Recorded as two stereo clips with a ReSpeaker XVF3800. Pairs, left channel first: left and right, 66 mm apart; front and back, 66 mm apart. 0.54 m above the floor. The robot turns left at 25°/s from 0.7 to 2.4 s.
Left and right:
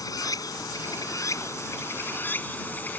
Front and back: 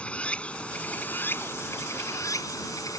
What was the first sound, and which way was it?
Running water, 70° left.